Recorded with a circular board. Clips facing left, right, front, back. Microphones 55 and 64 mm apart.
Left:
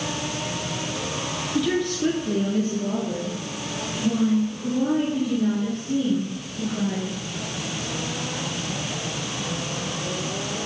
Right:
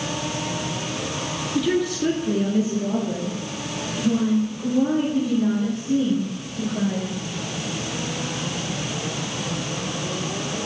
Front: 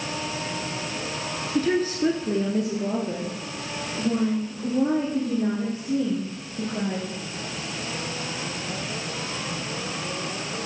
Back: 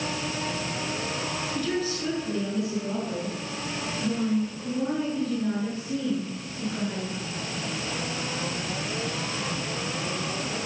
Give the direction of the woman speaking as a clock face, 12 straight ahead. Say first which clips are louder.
Right 2 dB, front 8 dB; 12 o'clock.